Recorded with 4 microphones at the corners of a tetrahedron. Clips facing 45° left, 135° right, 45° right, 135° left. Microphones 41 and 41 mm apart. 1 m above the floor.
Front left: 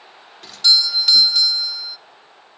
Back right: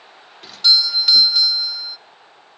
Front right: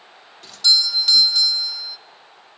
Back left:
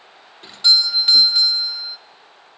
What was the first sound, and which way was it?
A doorbell, 145° left.